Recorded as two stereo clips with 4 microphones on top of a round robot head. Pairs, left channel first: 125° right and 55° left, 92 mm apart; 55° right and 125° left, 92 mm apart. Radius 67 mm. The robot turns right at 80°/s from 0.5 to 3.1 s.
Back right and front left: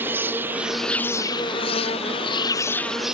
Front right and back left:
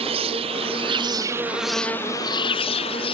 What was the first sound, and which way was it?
An insect, 120° left.